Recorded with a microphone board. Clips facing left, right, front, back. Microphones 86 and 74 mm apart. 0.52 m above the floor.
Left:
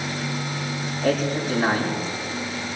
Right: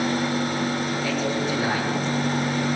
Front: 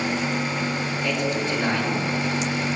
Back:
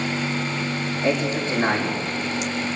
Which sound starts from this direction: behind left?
A man speaking, at 1.0 s.